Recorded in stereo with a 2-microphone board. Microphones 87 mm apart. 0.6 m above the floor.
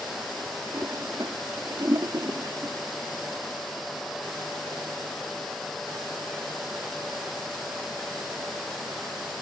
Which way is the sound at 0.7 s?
50° right (ahead or behind).